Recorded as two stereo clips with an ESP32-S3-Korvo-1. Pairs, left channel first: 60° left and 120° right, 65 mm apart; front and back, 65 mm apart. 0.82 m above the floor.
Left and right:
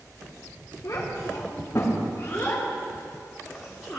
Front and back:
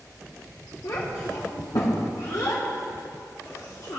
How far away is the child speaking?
About 2 m.